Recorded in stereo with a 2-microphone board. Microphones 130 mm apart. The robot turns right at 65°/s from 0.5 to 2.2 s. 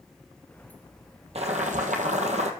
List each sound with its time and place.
1.4 s boiling: 120° right, 1.3 m; by 2.5 s 65° right, 1.3 m